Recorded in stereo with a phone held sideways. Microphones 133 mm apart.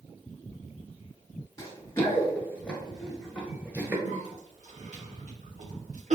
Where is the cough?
70° right (ahead or behind), 1.2 m.